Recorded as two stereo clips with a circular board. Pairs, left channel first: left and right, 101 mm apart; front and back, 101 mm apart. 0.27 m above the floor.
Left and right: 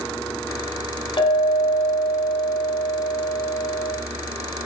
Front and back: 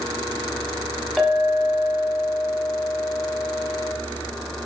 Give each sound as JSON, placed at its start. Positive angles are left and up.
{"t": 1.2, "sound": "a clink", "azimuth_deg": 95, "distance_m": 1.4}